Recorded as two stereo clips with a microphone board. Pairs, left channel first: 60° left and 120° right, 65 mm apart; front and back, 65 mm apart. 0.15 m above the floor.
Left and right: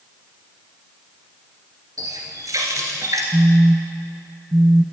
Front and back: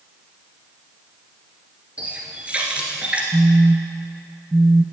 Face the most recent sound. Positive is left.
turn(degrees=-135)